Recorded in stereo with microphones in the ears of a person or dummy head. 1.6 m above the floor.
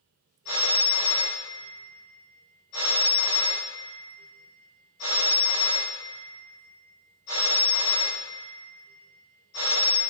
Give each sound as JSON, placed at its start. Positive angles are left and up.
{"t": 0.5, "sound": "a phone ringing", "side_deg": 55, "distance_m": 1.9}